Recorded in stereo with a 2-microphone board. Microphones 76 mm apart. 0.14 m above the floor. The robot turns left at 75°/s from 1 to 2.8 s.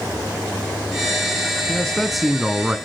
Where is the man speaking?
10° left (ahead or behind), 1.2 m; by 2.8 s 15° right (ahead or behind), 1.2 m.